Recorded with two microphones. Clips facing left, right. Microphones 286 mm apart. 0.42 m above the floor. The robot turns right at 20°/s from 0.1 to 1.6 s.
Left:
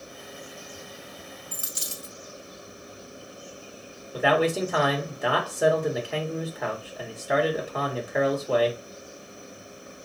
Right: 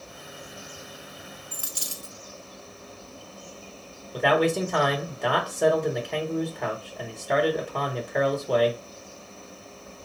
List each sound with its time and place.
1.5 s a dropped coin: 25° left (ahead or behind), 0.6 m
4.1 s a man speaking: 5° left (ahead or behind), 0.9 m